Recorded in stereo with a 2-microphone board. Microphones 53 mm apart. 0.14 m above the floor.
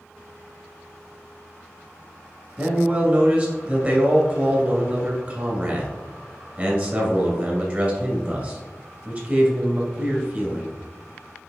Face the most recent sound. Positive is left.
turn(degrees=-30)  # may be behind; listen again after turning